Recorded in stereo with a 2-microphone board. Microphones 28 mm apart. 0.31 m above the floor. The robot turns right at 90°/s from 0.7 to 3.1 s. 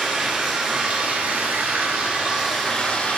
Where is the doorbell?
I don't hear a doorbell.